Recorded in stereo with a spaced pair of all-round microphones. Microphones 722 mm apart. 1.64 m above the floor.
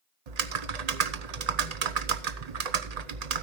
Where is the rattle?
I don't hear a rattle.